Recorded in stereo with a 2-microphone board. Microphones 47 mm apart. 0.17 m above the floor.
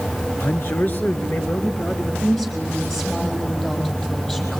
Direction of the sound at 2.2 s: 10° left (ahead or behind).